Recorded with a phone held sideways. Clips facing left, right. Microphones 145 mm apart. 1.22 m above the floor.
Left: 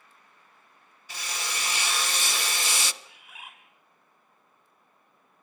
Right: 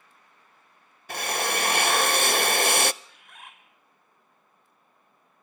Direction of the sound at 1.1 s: 60° right (ahead or behind).